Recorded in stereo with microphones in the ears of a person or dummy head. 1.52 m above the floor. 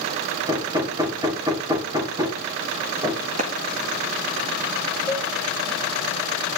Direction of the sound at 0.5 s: 25° right (ahead or behind).